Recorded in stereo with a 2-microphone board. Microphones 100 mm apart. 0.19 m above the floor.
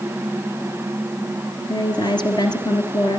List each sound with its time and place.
1.7 s a woman speaking: 50° left (ahead or behind), 3 m